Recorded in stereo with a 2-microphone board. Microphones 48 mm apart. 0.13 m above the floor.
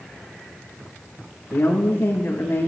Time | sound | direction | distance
1.5 | a woman speaking | 70° left (ahead or behind) | 6.5 m